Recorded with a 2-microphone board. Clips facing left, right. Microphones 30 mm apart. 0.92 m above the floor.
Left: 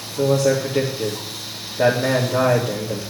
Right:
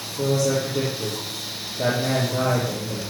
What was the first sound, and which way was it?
A man speaking, 60° left (ahead or behind).